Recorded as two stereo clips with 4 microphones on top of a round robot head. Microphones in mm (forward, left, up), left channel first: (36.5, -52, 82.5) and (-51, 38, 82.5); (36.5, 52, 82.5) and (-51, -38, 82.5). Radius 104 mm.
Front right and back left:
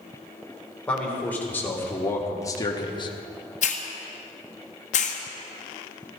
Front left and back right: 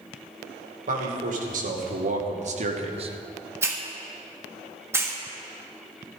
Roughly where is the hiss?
Ahead right.